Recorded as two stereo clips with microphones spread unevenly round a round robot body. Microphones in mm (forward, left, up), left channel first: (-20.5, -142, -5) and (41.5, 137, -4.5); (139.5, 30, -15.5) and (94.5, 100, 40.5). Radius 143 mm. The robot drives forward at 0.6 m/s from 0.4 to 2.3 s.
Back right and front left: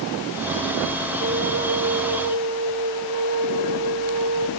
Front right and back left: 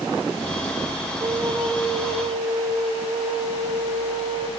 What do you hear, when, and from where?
1.2 s a flute: 60° left, 1.1 m; by 4.5 s 120° left, 1.1 m